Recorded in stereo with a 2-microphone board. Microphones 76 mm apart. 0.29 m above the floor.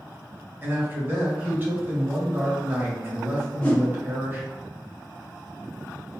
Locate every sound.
0.6 s a man speaking: 30° right (ahead or behind), 1.3 m
3.6 s a whoosh: 20° left (ahead or behind), 1.8 m